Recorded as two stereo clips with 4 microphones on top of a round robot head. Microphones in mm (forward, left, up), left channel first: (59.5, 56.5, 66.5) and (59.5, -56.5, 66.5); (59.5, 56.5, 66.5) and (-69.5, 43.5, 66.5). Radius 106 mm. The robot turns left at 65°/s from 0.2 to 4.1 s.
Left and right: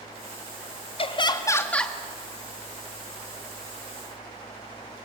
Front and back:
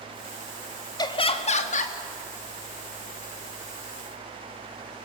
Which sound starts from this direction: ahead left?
Laughter, at 1.0 s.